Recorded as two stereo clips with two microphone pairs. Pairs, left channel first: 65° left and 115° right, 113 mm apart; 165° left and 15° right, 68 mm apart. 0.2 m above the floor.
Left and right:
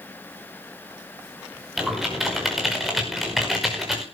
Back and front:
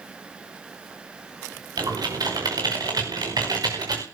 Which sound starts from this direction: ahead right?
Typing on a keyboard, at 1.8 s.